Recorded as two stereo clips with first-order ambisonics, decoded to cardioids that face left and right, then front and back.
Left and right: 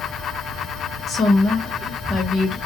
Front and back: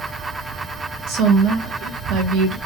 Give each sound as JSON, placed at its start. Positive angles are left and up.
{"t": 1.1, "sound": "a woman speaking", "azimuth_deg": 150, "distance_m": 1.1}